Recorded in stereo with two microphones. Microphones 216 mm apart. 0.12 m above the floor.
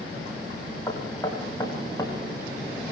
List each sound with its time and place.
0.9 s knocking: 15° left (ahead or behind), 7 m